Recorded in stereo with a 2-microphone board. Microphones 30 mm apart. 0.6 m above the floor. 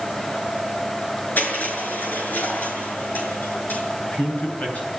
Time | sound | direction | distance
1.4 | crushing | 85° left | 6.5 m
4.0 | a man speaking | 55° left (ahead or behind) | 8.5 m